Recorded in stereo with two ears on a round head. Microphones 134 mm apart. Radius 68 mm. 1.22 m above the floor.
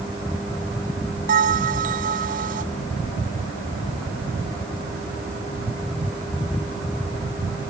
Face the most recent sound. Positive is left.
turn(degrees=-65)  # may be behind; listen again after turning